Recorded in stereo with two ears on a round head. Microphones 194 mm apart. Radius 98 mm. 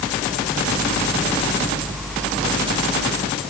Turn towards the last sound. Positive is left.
No sound to turn to.